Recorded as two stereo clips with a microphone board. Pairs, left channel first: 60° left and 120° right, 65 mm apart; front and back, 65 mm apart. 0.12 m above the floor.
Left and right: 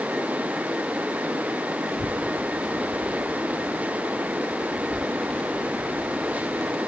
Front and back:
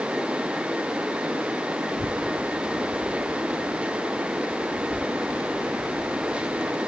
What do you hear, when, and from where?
1.9 s a child speaking: straight ahead; by 6.8 s 25° right